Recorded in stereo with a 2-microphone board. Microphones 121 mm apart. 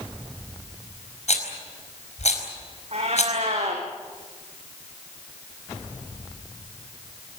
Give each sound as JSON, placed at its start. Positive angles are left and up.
{"t": 1.3, "sound": "a rattle", "side_deg": 70, "distance_m": 4.5}
{"t": 2.9, "sound": "a cat meowing", "side_deg": -60, "distance_m": 4.5}